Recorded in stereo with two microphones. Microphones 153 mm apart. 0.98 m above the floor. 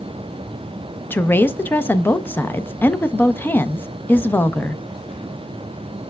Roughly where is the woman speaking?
Centre.